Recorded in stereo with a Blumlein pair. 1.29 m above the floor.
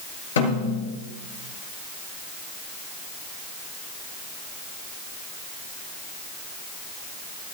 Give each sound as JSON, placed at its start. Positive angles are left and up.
{"t": 0.4, "sound": "a snare drum", "azimuth_deg": 65, "distance_m": 7.5}